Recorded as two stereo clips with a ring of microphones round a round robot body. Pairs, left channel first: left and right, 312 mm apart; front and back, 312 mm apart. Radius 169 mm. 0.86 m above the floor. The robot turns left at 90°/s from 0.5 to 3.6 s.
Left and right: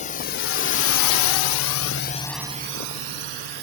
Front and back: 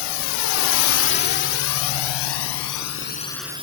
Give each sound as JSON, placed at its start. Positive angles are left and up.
{"t": 0.0, "sound": "a drone", "azimuth_deg": 20}